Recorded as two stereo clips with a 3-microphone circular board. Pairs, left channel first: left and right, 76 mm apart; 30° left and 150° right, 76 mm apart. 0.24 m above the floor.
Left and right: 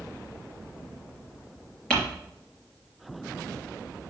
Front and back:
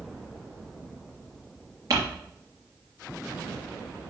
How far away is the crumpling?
About 4.5 m.